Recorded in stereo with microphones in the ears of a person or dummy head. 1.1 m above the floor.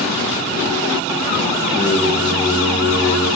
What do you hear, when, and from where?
1.7 s singing: 5° right (ahead or behind), 8 m